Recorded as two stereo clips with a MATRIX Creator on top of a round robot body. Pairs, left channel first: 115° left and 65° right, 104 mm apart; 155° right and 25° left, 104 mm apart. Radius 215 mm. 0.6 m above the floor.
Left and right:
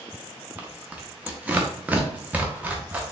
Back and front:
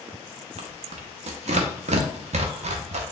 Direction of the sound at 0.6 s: 10° left.